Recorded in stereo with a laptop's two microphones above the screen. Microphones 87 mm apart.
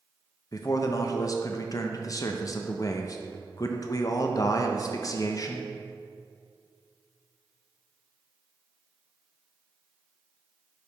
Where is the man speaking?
40° left (ahead or behind), 0.5 m.